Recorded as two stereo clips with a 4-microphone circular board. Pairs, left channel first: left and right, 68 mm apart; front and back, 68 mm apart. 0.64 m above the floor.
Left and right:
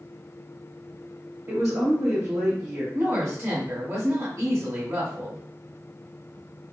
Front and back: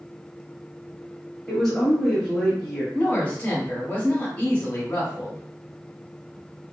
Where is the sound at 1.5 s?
90° right, 1.3 m.